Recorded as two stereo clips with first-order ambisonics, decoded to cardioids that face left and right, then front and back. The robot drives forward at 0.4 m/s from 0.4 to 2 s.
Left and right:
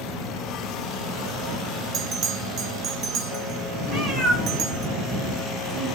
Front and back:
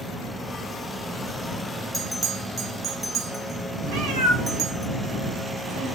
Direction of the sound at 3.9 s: 170° right.